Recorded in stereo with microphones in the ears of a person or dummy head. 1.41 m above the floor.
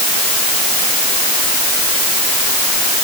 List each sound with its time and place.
Only background noise.